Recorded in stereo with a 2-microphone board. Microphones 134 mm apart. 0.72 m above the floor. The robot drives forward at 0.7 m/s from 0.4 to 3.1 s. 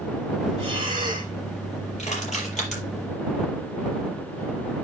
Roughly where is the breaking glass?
No breaking glass in this recording.